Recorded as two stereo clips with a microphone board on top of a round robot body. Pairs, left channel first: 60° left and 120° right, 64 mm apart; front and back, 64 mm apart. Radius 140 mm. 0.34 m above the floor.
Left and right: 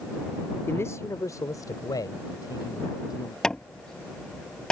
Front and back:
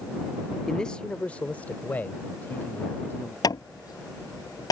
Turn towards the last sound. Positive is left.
turn(degrees=-20)